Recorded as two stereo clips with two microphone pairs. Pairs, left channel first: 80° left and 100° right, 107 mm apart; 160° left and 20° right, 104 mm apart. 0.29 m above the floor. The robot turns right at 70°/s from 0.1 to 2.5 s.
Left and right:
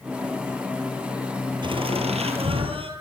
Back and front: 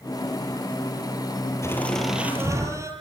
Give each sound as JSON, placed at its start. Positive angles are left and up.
{"t": 1.6, "sound": "laughter", "azimuth_deg": -135, "distance_m": 7.5}